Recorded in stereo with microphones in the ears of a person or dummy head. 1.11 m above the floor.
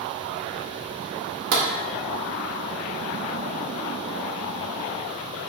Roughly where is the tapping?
Right.